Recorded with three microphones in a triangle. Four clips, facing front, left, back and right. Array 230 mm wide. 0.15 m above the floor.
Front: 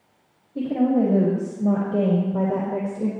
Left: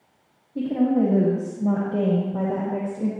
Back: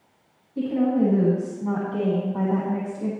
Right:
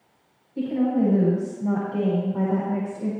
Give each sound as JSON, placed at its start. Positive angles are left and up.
{"t": 0.6, "sound": "a woman speaking", "azimuth_deg": 35, "distance_m": 6.5}